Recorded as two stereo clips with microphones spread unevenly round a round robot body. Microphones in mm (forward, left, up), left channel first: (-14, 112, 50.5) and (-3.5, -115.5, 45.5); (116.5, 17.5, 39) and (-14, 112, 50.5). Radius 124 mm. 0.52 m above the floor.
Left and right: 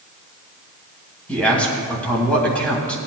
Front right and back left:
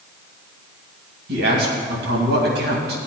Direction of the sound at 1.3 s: 175° left.